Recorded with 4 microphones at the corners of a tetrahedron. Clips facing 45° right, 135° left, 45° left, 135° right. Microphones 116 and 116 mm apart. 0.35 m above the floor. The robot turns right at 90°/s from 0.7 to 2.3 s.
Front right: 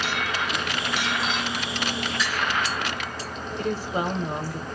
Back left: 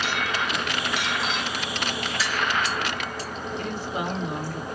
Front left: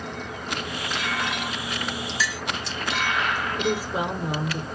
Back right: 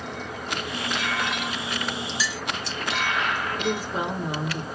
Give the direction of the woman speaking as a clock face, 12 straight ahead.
1 o'clock.